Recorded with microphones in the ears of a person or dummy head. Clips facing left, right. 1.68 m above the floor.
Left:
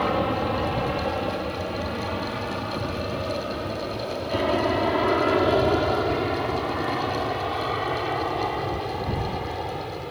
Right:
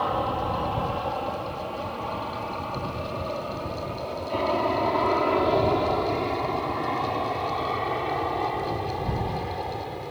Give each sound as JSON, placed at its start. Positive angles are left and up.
{"t": 0.0, "sound": "an aircraft", "side_deg": 30}